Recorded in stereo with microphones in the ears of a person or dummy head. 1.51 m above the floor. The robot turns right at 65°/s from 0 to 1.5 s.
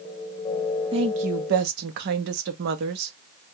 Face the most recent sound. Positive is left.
turn(degrees=-115)